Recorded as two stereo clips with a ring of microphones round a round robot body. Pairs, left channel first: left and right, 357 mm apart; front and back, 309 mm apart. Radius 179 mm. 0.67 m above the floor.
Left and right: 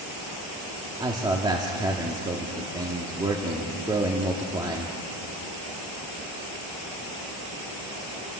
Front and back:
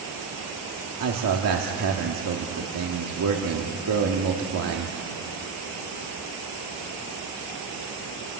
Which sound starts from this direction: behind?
A man speaking, at 1.0 s.